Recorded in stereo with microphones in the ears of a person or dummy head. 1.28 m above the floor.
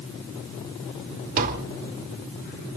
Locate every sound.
1.4 s tapping: 45° right (ahead or behind), 2.5 m